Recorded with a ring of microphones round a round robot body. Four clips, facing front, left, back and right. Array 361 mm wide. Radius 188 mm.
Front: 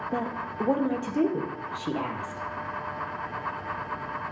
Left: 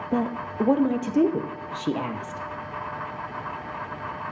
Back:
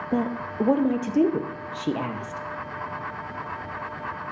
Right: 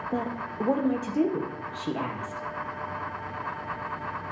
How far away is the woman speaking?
About 0.5 m.